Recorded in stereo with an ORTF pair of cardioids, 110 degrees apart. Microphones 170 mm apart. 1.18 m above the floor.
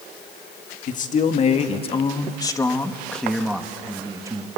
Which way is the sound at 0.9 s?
50° left.